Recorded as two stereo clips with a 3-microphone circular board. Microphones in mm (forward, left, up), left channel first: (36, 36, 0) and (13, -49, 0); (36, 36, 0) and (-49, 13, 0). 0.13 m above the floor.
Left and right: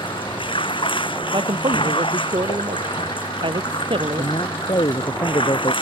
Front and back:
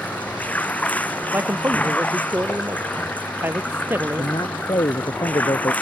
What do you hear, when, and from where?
0.0 s running water: 85° left
1.3 s a man speaking: 100° right
4.2 s a man speaking: 45° left